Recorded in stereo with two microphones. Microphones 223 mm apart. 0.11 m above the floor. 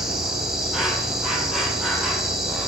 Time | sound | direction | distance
0.0 | an insect | centre (ahead or behind) | 1.5 m